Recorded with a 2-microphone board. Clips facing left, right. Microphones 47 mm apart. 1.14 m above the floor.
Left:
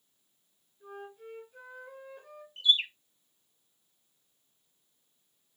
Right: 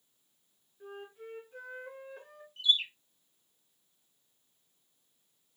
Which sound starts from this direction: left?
A bird, at 2.6 s.